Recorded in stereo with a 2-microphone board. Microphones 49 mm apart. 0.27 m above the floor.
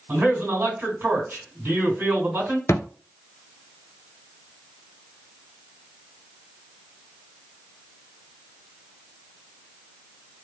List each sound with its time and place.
0.1 s a man speaking: 50° right (ahead or behind), 2.5 m
2.7 s a thud: 80° left, 0.5 m